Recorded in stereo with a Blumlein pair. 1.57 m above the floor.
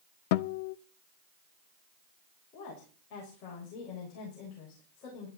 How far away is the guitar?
About 0.6 m.